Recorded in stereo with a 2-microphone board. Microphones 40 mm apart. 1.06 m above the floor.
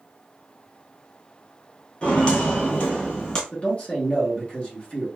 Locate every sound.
2.0 s footsteps: 20° left (ahead or behind), 1.1 m; by 3.4 s 25° left (ahead or behind), 1.4 m
3.5 s a man speaking: 30° left (ahead or behind), 1.1 m